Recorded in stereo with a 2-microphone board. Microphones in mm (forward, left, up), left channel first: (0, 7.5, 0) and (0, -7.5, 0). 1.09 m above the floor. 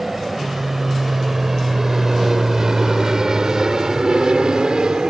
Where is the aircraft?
10° right (ahead or behind); by 5.1 s 45° right (ahead or behind).